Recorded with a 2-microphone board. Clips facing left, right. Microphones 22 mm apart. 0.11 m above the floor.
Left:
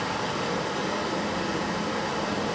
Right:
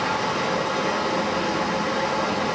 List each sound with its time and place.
0.0 s running water: 40° right (ahead or behind), 6 m